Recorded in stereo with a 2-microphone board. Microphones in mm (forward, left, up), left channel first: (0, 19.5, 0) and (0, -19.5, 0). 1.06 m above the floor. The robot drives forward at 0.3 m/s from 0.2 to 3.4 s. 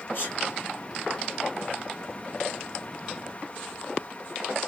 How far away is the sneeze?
About 2.5 m.